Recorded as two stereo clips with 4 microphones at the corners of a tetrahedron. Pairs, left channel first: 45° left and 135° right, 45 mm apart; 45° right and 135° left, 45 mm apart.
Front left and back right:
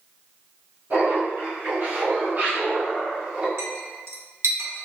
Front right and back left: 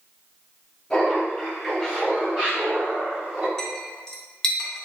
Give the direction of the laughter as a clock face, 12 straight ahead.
4 o'clock.